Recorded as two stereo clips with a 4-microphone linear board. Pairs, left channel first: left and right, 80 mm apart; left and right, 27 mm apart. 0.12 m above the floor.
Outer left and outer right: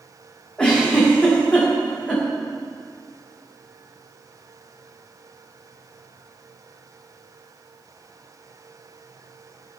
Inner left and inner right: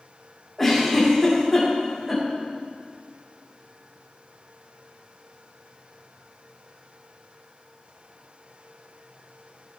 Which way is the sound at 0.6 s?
15° left (ahead or behind).